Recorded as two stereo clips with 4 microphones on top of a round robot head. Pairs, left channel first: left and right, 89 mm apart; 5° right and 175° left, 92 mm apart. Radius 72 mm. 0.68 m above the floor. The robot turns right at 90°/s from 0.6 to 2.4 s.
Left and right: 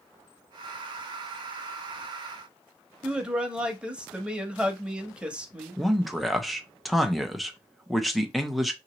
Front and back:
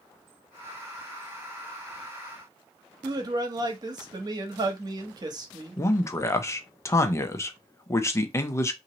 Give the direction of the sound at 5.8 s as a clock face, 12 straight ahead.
12 o'clock.